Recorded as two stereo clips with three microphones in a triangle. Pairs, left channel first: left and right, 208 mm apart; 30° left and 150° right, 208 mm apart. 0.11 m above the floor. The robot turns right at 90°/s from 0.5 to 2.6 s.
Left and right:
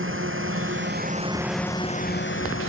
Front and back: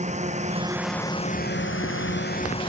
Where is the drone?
95° right; by 2.7 s 95° left.